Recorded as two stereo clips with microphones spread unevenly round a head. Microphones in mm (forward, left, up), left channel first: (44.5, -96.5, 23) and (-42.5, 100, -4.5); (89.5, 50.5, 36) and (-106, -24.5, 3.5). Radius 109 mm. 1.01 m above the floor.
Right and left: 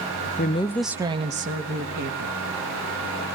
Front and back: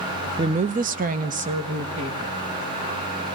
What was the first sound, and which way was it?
A woman speaking, 110° right.